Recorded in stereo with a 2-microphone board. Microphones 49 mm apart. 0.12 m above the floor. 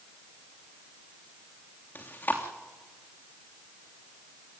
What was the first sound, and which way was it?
Chewing, 40° left (ahead or behind).